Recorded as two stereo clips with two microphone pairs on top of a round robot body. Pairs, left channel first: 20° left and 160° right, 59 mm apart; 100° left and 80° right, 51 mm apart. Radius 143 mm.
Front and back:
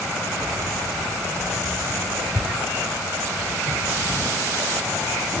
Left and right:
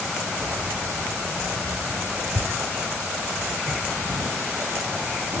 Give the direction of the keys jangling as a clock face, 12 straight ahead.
2 o'clock.